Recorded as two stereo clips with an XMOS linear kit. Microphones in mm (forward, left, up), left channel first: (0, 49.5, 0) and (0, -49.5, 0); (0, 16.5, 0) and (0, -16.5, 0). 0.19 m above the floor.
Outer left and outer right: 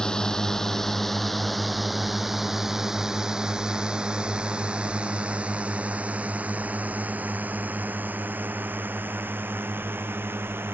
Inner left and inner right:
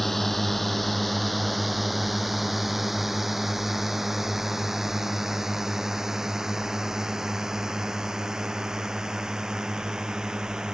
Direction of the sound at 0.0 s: 5° left (ahead or behind).